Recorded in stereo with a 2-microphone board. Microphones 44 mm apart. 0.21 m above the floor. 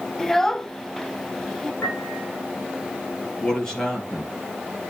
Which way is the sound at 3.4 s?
10° left (ahead or behind).